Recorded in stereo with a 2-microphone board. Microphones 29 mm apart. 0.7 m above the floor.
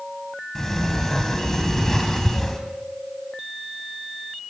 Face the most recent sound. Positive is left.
turn(degrees=20)  # may be behind; listen again after turning